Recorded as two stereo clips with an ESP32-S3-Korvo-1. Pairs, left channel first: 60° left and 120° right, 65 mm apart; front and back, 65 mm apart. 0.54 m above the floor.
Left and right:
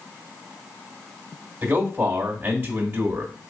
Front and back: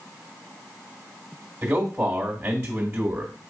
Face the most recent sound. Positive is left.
turn(degrees=-160)